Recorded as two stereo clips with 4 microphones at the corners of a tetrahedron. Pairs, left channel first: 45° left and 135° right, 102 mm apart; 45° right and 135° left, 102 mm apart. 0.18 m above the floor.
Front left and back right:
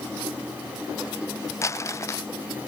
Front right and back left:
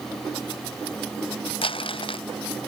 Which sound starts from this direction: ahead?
Crumpling, at 1.6 s.